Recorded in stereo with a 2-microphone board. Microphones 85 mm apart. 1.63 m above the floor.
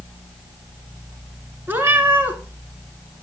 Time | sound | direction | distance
1.7 | a cat meowing | 25° right (ahead or behind) | 1.9 m